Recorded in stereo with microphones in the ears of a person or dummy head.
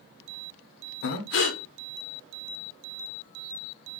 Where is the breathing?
70° left (ahead or behind), 0.8 m.